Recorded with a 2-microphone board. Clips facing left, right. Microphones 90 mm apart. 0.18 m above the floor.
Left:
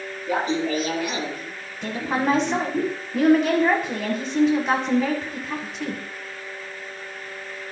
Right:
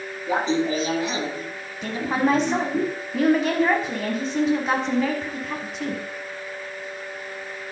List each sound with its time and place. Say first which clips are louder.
0.3 s laughter: right 1 dB; 25° right (ahead or behind), 2 m
1.8 s a woman speaking: right 1 dB; centre (ahead or behind), 1.3 m